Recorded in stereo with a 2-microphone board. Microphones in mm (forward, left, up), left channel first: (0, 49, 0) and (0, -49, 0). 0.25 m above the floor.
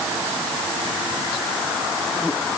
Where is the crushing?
I don't hear crushing.